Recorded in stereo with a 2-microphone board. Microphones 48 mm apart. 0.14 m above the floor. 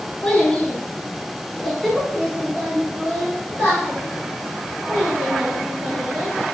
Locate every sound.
0.2 s a child speaking: 20° left (ahead or behind), 1.0 m; by 6.3 s 25° right (ahead or behind), 2.5 m